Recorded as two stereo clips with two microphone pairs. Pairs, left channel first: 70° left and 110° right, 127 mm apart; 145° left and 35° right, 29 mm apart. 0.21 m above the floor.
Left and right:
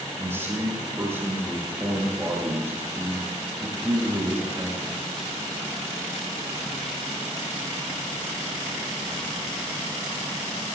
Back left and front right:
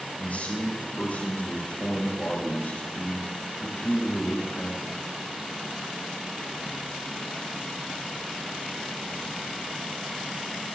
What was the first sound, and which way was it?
A man speaking, 175° left.